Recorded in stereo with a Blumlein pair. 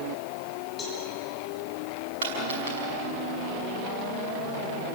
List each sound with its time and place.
0.8 s a cowbell: 20° left, 6.5 m
2.2 s a dropped coin: 60° right, 6 m